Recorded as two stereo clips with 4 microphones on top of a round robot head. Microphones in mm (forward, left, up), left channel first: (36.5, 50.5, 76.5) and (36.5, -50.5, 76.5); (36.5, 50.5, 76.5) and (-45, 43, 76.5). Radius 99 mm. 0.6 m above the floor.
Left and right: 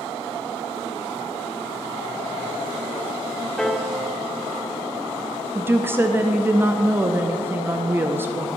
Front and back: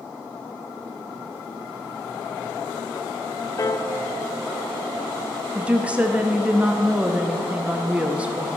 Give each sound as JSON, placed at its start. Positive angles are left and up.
{"t": 3.6, "sound": "a piano", "azimuth_deg": 5, "distance_m": 0.7}
{"t": 5.5, "sound": "a woman speaking", "azimuth_deg": -125, "distance_m": 0.5}